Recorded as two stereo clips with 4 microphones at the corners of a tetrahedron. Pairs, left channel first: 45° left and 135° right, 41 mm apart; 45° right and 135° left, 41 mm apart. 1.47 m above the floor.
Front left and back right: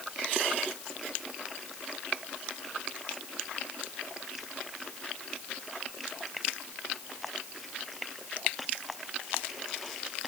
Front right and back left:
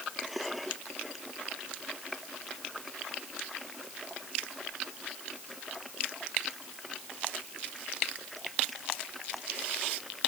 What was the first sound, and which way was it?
Only background noise.